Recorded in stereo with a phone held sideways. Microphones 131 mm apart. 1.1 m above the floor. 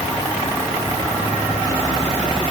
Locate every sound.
Only background noise.